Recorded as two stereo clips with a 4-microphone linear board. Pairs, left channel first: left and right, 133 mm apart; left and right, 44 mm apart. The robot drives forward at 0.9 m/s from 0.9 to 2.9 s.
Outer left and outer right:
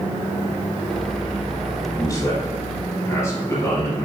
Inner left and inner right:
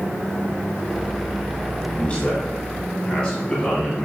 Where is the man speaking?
25° left (ahead or behind), 1.3 m; by 4.1 s 20° left (ahead or behind), 1.6 m.